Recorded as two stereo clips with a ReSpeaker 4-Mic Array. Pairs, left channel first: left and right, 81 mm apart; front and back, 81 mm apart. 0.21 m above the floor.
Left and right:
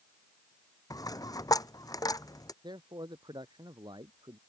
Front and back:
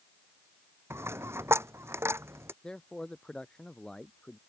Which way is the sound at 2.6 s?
80° right.